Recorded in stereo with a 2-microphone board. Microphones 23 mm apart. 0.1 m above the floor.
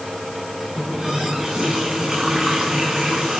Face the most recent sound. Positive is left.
turn(degrees=-20)  # may be behind; listen again after turning